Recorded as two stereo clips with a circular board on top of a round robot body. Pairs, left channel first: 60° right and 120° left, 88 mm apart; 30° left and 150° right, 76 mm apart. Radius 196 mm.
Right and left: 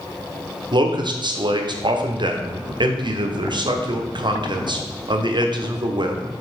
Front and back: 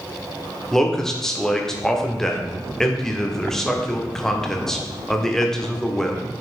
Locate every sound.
0.7 s a man speaking: 110° left, 1.3 m